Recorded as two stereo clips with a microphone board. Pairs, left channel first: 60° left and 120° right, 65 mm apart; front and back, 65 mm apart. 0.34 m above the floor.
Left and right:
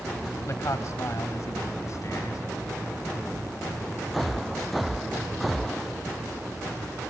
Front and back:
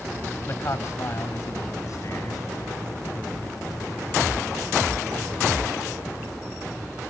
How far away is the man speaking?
About 1.4 m.